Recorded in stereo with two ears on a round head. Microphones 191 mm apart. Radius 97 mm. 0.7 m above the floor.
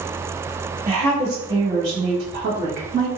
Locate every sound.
0.9 s a woman speaking: 50° right (ahead or behind), 1.7 m; by 3.1 s 35° right (ahead or behind), 1.3 m